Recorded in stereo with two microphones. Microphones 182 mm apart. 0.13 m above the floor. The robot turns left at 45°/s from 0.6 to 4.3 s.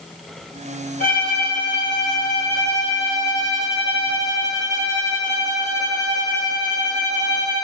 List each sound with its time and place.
1.0 s a violin: 125° left, 2.5 m; by 7.6 s 20° right, 2.5 m